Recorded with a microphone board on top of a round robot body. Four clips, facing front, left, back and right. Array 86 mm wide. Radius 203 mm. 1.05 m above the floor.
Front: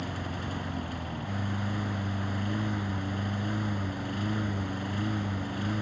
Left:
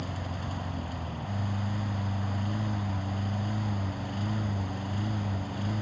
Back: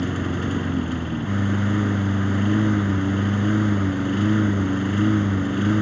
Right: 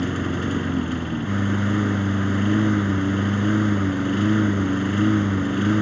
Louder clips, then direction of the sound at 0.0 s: Right 13 dB, back 11 dB; 120° right.